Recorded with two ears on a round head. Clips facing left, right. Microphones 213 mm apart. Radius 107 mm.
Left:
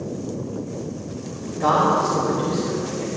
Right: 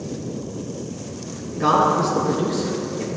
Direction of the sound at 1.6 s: 35° right (ahead or behind).